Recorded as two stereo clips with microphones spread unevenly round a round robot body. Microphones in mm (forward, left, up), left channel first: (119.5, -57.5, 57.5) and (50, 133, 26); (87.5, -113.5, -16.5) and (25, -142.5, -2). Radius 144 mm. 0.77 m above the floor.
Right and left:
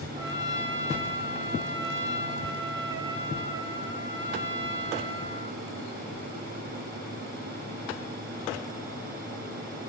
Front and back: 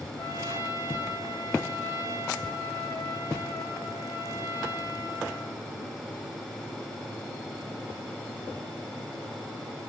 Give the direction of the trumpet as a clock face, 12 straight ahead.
7 o'clock.